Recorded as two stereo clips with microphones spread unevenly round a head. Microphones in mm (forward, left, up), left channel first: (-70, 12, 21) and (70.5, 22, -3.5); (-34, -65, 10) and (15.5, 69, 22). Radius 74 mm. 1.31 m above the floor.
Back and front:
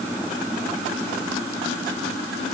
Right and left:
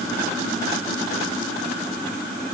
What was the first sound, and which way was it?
Only background noise.